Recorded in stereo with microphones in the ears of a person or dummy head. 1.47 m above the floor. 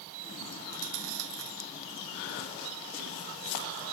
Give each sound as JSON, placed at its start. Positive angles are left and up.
{"t": 0.6, "sound": "chewing", "side_deg": -90}